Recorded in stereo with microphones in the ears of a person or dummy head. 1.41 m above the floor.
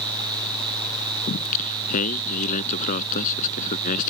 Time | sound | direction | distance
1.3 | singing | 45° left (ahead or behind) | ?